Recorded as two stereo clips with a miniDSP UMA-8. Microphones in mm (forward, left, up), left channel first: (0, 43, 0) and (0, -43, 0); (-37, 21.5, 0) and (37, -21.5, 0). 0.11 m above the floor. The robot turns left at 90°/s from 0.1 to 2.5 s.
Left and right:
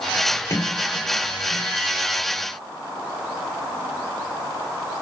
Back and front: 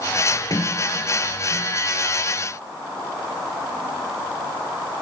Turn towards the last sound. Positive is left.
turn(degrees=-45)